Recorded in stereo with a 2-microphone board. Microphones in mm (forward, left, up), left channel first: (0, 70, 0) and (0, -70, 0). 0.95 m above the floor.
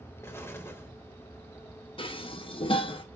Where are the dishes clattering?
40° left (ahead or behind), 0.6 m.